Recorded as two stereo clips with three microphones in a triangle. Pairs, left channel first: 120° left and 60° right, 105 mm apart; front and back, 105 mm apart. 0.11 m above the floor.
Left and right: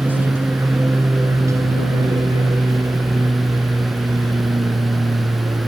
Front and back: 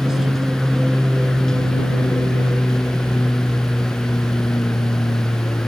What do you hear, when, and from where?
0.0 s an aircraft: 105° right; by 5.7 s 45° right